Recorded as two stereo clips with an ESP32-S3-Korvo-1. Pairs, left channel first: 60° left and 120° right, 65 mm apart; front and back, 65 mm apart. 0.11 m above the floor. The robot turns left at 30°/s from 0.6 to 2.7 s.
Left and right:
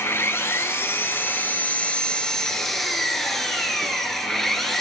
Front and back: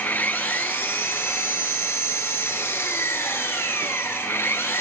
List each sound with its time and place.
0.0 s an engine running: 40° left, 0.8 m; by 4.8 s 20° right, 0.8 m